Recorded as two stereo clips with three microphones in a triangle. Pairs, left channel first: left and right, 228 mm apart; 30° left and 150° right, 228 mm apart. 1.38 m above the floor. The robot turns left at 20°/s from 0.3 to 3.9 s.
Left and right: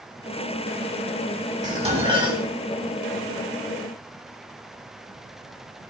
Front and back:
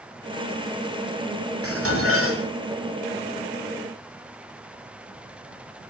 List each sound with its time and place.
1.6 s dishes clattering: 150° right, 7 m; by 2.4 s 165° right, 7 m